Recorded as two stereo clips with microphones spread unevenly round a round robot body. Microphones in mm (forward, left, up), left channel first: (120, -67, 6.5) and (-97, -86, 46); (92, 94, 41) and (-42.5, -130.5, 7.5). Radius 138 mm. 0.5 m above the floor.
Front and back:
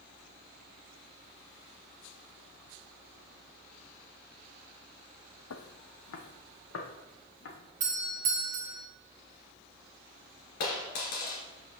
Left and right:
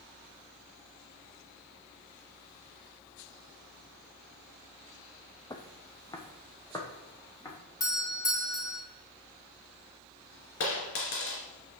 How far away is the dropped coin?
About 2.5 m.